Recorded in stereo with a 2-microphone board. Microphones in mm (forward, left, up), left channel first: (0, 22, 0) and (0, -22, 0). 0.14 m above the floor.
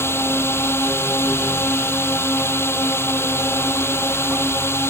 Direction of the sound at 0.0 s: 70° left (ahead or behind).